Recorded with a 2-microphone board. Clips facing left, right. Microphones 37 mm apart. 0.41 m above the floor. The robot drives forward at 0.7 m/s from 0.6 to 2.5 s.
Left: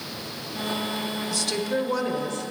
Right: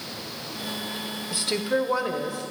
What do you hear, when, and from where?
1.3 s a woman speaking: 20° right (ahead or behind), 0.9 m; by 2.5 s 15° right (ahead or behind), 1.5 m